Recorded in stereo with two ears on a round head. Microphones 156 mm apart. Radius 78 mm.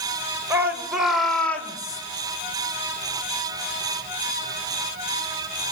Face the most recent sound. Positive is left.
turn(degrees=25)  # may be behind; listen again after turning